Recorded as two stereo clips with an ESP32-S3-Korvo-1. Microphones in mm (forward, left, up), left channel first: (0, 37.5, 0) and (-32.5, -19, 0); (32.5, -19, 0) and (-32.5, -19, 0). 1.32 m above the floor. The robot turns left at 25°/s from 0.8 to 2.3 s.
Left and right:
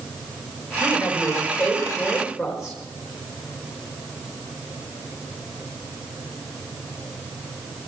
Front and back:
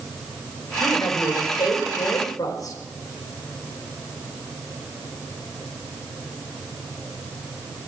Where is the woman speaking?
Straight ahead, 4.5 m; by 2.8 s 35° right, 4.5 m.